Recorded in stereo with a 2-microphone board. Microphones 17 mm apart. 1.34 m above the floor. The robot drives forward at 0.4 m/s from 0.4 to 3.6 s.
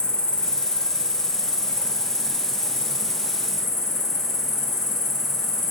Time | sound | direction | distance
0.0 | an insect | 70° left (ahead or behind) | 0.8 m